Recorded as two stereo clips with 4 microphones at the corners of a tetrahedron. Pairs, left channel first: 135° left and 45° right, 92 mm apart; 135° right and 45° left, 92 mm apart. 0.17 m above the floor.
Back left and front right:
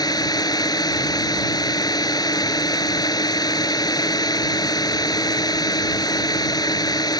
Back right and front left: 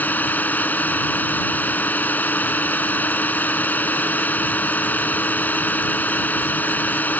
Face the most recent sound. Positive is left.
turn(degrees=160)